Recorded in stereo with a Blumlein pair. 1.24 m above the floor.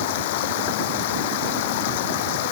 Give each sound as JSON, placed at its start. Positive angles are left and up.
{"t": 0.0, "sound": "running water", "azimuth_deg": 50}